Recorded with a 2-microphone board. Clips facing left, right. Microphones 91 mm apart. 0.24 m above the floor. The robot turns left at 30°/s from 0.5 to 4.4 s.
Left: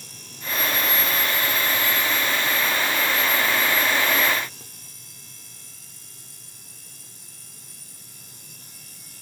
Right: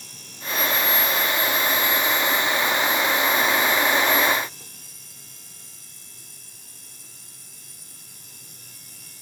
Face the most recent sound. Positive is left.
No sound to turn to.